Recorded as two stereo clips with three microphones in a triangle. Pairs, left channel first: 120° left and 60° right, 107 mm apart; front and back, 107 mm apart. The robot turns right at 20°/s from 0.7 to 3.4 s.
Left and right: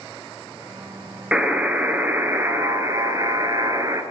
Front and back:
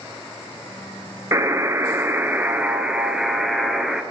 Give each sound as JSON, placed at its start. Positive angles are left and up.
{"t": 1.3, "sound": "a buzzer", "azimuth_deg": -135, "distance_m": 0.8}